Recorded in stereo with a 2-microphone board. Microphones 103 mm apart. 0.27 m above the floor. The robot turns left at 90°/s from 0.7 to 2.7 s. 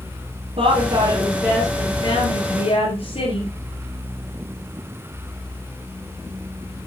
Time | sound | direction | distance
0.6 | a woman speaking | 100° right | 6 m